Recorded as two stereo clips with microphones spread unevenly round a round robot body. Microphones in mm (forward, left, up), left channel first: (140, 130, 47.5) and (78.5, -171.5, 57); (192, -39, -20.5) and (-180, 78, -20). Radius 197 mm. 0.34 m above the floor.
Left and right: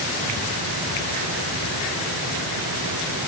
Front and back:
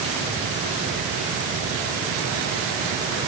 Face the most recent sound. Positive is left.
No sound to turn to.